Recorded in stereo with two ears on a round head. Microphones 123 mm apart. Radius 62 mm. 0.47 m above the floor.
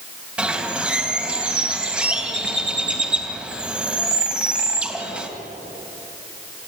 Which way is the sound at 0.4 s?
10° right (ahead or behind).